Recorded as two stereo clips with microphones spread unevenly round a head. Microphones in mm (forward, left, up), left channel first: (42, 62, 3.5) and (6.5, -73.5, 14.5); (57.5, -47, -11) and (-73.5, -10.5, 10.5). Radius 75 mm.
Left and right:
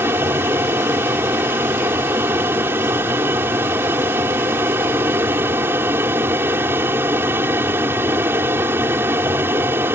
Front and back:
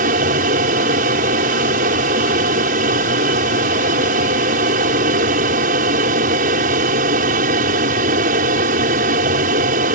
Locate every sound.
0.0 s an aircraft: straight behind